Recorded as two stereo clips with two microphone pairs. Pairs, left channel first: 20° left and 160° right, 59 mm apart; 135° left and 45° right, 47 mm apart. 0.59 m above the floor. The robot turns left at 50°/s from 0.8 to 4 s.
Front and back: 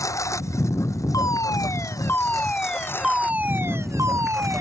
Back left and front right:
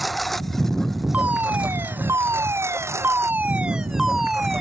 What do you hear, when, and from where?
0.0 s a lawn mower: 45° left; by 4.6 s 70° right
1.1 s a fire alarm: 15° left; by 4.6 s 130° right